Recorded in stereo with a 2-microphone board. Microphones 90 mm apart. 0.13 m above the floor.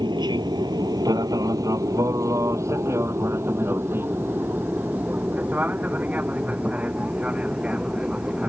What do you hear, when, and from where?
0.0 s an aircraft: 55° right (ahead or behind); by 8.5 s 10° right (ahead or behind)